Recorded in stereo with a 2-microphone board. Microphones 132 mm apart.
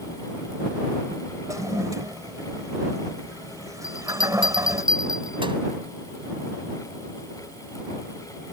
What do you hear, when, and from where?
1.5 s a toilet flushing: 25° right (ahead or behind)
3.8 s a bell: 40° right (ahead or behind)